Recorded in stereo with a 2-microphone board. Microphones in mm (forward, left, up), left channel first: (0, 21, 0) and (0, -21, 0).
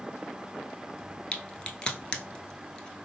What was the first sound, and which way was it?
A crack, 20° left (ahead or behind).